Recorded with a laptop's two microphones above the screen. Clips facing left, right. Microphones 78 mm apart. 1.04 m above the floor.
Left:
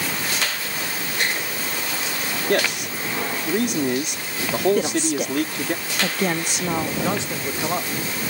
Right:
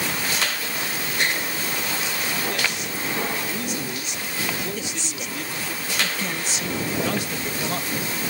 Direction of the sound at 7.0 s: 25° left (ahead or behind).